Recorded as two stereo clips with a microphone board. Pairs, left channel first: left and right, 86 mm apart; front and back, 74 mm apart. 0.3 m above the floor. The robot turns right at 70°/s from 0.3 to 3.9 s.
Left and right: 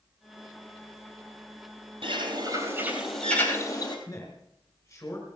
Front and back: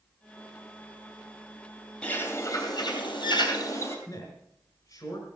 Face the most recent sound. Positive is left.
turn(degrees=40)